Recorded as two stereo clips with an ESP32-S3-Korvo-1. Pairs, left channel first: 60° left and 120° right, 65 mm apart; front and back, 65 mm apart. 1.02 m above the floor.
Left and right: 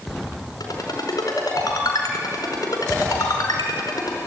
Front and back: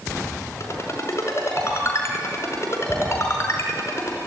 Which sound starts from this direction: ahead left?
A ringtone, at 0.6 s.